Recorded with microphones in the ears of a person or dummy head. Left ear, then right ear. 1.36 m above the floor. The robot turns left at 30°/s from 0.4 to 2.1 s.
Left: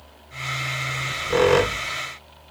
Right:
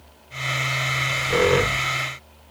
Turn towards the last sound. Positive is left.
turn(degrees=135)